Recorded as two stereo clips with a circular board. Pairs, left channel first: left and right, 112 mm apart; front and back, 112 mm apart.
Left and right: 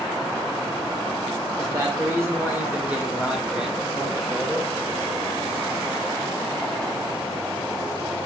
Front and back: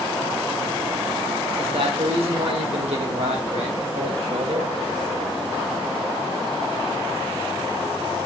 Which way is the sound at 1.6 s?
145° right.